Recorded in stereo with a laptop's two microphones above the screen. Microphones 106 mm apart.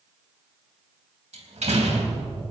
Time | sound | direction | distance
1.3 | a door slam | 90° right | 3.5 m